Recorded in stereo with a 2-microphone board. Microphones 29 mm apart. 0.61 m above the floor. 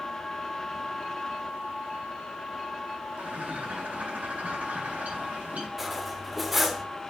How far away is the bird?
About 3.5 m.